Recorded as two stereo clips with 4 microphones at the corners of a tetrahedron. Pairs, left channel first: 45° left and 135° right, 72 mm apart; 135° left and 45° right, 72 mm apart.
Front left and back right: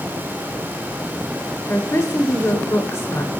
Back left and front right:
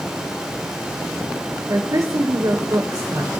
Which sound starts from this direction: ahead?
A woman speaking, at 1.7 s.